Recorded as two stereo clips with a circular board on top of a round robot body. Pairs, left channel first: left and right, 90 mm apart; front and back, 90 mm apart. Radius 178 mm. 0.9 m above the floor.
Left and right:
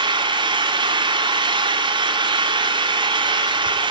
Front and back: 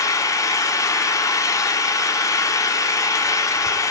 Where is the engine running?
55° right, 2.5 m.